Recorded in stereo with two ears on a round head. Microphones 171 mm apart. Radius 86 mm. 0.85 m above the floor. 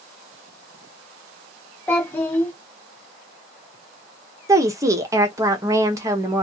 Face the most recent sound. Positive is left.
turn(degrees=-15)  # may be behind; listen again after turning